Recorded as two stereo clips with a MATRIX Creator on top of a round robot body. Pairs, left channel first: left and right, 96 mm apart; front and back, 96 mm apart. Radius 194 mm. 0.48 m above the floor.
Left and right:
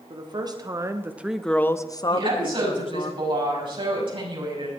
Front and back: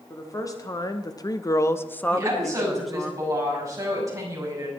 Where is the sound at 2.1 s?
120° right, 6.5 m.